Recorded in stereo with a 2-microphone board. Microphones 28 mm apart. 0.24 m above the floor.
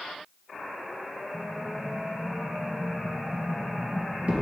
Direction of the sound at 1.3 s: 50° right (ahead or behind).